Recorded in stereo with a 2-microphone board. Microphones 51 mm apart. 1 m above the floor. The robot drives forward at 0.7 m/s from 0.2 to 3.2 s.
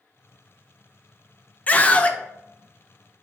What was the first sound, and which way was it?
A scream, 30° left (ahead or behind).